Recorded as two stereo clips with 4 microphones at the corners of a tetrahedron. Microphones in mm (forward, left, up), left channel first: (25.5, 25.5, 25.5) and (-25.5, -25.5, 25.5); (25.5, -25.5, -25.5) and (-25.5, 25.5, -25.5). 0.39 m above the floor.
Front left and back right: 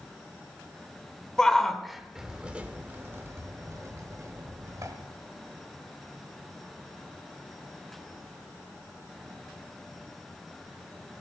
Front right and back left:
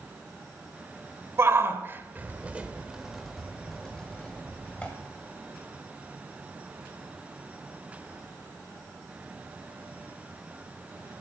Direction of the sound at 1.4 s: 120° left.